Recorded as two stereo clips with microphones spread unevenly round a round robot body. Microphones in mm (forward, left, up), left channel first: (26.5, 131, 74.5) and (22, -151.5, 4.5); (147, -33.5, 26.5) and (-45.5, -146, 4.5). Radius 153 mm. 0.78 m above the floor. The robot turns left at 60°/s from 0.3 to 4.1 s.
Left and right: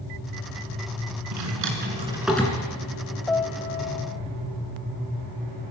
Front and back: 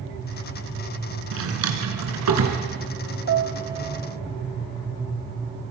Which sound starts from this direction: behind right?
A drawer, at 1.3 s.